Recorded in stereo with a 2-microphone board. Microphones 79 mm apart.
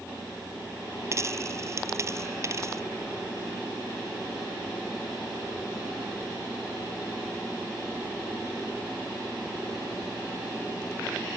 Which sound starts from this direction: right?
A dropped coin, at 1.1 s.